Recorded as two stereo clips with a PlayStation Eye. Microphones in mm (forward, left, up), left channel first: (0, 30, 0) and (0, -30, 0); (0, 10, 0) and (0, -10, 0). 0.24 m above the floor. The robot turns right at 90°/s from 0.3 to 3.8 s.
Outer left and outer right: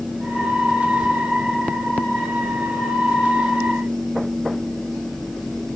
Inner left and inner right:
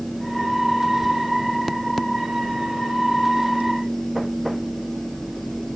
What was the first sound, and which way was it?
Only background noise.